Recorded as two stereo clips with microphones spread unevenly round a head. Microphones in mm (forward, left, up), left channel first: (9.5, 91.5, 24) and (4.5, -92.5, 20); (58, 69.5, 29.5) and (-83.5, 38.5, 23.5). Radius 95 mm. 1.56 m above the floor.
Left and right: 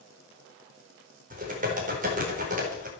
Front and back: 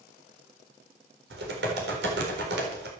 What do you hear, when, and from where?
1.3 s typing on a keyboard: 140° right, 4 m